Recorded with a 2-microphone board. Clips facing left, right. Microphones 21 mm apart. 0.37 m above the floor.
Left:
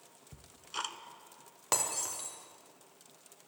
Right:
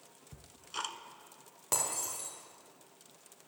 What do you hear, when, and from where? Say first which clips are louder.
0.3 s ticking: left 1 dB; 5° left (ahead or behind), 0.6 m
1.7 s breaking glass: left 2 dB; 25° left (ahead or behind), 2.5 m